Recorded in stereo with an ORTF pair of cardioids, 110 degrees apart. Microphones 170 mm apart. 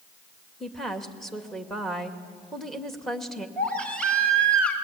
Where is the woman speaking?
Straight ahead, 2.5 m.